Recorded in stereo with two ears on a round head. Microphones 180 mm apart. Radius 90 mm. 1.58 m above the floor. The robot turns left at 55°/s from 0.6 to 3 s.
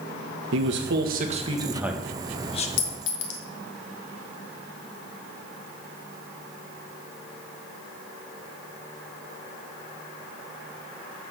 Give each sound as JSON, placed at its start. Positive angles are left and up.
{"t": 0.5, "sound": "a man speaking", "azimuth_deg": -105, "distance_m": 1.5}
{"t": 2.8, "sound": "a clink", "side_deg": 65, "distance_m": 1.4}